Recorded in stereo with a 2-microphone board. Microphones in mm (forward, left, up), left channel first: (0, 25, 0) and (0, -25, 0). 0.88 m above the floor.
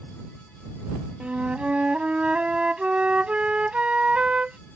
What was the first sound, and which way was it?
A flute, 25° right (ahead or behind).